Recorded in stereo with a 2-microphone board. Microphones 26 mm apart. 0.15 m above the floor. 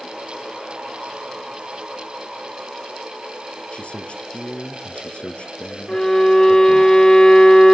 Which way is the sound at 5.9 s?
25° left (ahead or behind).